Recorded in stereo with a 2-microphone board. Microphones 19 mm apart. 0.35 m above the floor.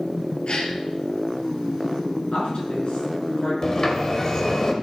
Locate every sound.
0.5 s a gasp: 55° left (ahead or behind), 2 m
2.3 s a woman speaking: 65° left (ahead or behind), 5 m
3.6 s a sliding door: 30° left (ahead or behind), 1.5 m